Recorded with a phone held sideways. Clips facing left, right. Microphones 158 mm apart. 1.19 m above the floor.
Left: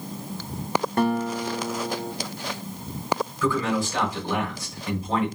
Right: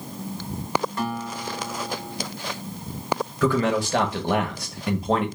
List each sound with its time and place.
1.0 s a guitar: 55° left (ahead or behind), 0.8 m
3.4 s a man speaking: 60° right (ahead or behind), 1.1 m